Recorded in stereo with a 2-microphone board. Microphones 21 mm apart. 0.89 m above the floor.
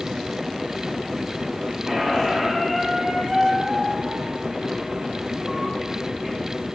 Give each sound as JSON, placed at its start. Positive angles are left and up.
{"t": 1.9, "sound": "a squeak", "side_deg": -20, "distance_m": 3.5}